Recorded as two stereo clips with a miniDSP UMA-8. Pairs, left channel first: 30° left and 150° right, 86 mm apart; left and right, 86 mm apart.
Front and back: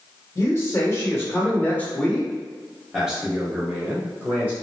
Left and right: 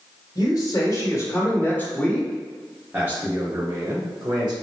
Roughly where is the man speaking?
Left.